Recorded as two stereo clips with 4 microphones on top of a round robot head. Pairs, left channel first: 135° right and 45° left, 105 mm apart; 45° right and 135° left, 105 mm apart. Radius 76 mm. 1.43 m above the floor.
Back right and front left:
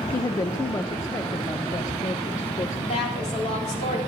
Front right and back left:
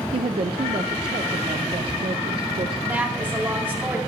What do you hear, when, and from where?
0.1 s a woman speaking: 165° left, 0.7 m
2.9 s a woman speaking: 155° right, 4 m